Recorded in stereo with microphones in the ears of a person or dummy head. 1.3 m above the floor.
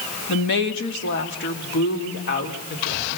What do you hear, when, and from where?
0.3 s a woman speaking: 65° left (ahead or behind), 2.0 m; by 3.2 s 55° left (ahead or behind), 4 m